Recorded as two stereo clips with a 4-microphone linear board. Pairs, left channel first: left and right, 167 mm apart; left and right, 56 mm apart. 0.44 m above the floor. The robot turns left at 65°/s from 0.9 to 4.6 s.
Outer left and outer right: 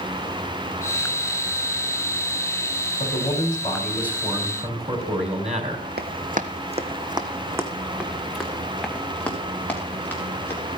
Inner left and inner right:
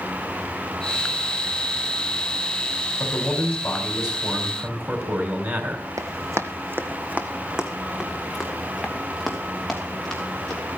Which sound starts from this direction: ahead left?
A man speaking, at 3.0 s.